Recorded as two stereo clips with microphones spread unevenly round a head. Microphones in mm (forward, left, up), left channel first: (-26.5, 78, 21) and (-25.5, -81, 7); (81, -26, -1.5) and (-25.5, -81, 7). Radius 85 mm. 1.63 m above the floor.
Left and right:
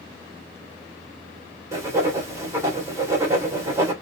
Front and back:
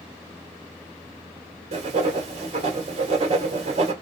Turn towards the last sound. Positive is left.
turn(degrees=-160)